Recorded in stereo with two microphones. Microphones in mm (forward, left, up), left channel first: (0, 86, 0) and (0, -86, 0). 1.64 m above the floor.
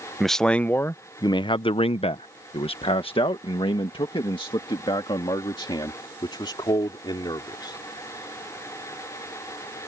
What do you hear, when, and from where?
0.2 s a man speaking: centre (ahead or behind); by 7.8 s 25° left (ahead or behind)